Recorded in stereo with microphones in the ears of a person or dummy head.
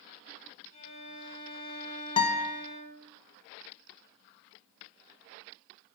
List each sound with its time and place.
0.7 s a violin: 65° left (ahead or behind), 5 m
2.2 s a guitar: 30° left (ahead or behind), 0.7 m